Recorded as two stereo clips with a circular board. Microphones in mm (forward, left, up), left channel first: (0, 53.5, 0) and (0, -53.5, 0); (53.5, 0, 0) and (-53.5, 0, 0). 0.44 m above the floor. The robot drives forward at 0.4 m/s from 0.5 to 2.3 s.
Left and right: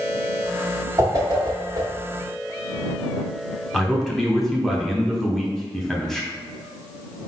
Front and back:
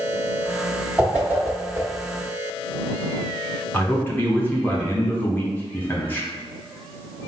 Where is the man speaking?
10° left, 0.8 m.